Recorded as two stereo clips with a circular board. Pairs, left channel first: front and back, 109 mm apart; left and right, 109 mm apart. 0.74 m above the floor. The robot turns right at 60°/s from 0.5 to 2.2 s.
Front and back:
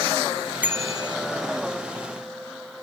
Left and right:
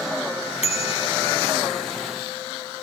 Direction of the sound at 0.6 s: 105° left.